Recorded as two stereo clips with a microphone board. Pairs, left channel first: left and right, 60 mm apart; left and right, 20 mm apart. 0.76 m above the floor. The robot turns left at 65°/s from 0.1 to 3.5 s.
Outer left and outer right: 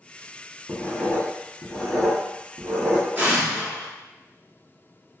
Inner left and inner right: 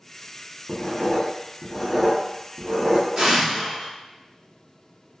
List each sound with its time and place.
0.7 s writing: 55° left (ahead or behind), 0.8 m; by 3.1 s 50° right (ahead or behind), 0.8 m
3.2 s an explosion: 30° right (ahead or behind), 0.9 m; by 3.9 s 10° right (ahead or behind), 0.9 m